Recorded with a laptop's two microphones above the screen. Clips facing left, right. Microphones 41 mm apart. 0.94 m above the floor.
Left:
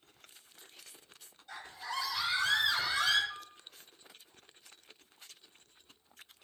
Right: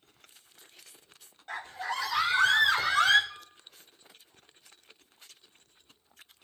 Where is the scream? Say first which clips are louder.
Right 6 dB; 50° right (ahead or behind), 2.5 m; by 3.2 s 55° right (ahead or behind), 4 m.